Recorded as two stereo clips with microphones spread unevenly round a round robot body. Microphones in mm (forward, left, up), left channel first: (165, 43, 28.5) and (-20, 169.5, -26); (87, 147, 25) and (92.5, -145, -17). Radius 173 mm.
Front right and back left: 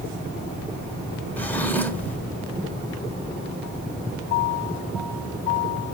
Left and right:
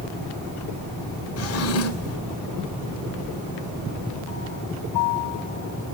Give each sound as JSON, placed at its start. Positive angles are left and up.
{"t": 1.4, "sound": "a drawer", "azimuth_deg": 55, "distance_m": 0.7}